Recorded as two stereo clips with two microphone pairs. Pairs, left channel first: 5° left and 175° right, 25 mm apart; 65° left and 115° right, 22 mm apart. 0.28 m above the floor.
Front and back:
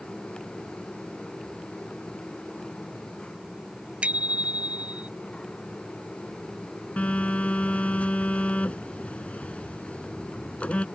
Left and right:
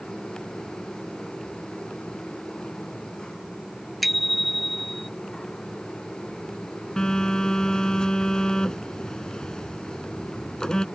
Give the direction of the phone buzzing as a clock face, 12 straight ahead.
12 o'clock.